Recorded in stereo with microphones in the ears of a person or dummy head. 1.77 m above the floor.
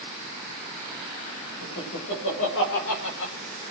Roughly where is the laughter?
Left.